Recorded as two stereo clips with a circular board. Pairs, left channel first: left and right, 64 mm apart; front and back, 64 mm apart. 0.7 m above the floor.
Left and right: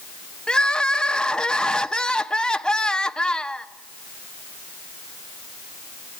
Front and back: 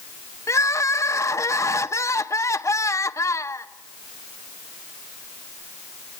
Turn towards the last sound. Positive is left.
turn(degrees=15)